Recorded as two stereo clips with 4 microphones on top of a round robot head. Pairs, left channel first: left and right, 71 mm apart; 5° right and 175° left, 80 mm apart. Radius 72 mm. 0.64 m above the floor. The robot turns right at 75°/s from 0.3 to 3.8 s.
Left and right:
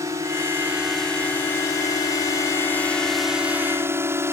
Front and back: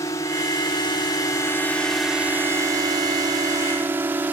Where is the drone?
50° right; by 4.3 s 125° right.